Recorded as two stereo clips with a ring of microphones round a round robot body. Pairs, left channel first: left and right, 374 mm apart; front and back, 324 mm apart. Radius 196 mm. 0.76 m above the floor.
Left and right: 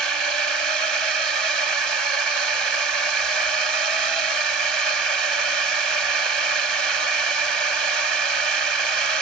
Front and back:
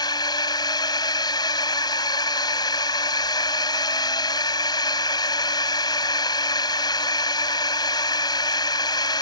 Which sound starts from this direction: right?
A drone, at 0.0 s.